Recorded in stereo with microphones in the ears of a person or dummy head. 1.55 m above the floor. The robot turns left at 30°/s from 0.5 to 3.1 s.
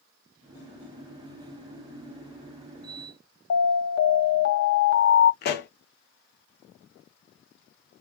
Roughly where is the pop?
Left.